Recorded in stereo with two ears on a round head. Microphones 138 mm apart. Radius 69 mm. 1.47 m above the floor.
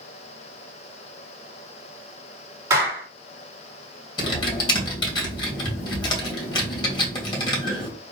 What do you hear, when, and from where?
2.7 s a clap: 25° right (ahead or behind), 4 m
4.2 s typing on a keyboard: 30° left (ahead or behind), 2.5 m